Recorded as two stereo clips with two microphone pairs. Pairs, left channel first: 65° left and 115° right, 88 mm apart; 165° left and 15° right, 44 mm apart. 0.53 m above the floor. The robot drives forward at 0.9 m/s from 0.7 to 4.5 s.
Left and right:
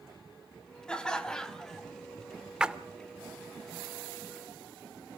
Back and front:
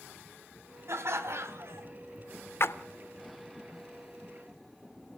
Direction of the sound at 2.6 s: 165° left.